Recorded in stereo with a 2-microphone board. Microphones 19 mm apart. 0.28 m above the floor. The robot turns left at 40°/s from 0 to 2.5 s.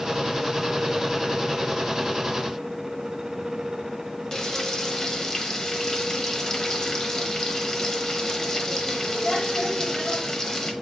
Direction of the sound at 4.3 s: 25° left (ahead or behind).